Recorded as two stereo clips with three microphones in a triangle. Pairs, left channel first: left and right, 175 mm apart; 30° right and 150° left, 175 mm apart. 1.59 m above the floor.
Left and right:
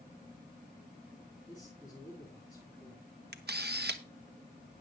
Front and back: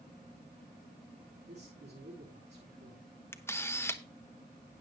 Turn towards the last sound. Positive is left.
turn(degrees=-105)